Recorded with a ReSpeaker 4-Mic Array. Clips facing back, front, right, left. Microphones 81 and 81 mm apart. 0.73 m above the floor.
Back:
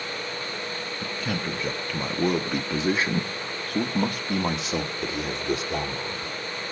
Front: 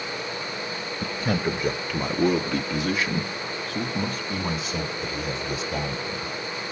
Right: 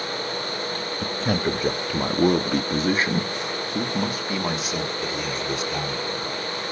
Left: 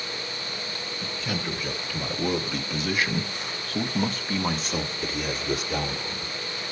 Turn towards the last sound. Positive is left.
turn(degrees=175)